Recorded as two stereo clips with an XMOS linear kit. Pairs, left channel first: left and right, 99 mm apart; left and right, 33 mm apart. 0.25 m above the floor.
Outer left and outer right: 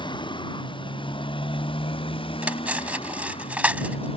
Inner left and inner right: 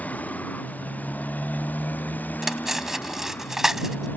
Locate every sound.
0.0 s a motorcycle: 50° left (ahead or behind); by 4.2 s 65° left (ahead or behind)
2.4 s cutlery clinking: 15° right (ahead or behind)